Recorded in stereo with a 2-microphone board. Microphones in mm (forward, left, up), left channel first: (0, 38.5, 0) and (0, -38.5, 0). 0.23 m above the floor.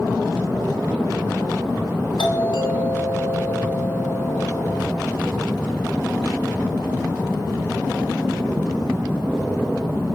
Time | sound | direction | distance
2.2 | a doorbell | 70° left (ahead or behind) | 5.5 m